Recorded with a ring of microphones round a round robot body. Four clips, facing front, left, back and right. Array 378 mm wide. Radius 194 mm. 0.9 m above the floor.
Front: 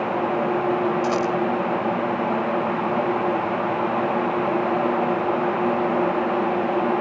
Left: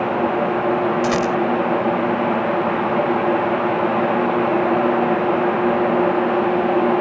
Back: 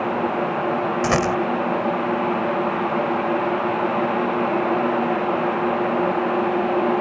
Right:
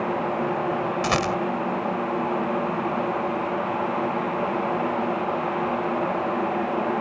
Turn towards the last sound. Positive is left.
turn(degrees=-170)